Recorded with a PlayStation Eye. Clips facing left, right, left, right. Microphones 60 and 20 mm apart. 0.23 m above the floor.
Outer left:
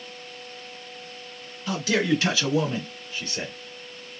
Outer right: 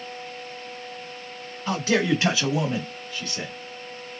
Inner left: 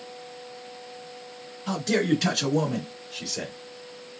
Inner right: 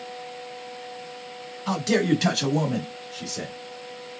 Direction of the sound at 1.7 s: 40° right (ahead or behind).